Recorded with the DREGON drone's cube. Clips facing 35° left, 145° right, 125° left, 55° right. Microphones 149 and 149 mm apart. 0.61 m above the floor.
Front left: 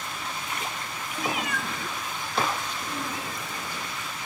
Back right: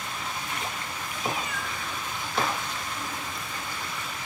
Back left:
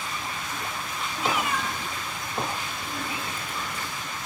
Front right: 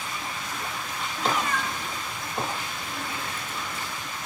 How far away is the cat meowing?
About 1.3 m.